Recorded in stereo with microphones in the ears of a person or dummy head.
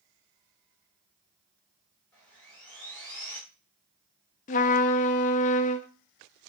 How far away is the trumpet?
About 0.6 m.